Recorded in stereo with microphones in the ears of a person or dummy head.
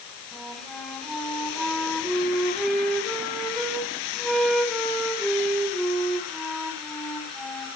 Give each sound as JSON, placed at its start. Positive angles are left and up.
{"t": 0.3, "sound": "a flute", "side_deg": 5, "distance_m": 4.0}